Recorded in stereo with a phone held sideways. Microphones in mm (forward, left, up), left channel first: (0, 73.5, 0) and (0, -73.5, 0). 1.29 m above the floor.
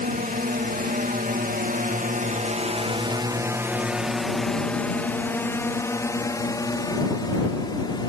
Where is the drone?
70° right (ahead or behind); by 8.1 s 30° left (ahead or behind).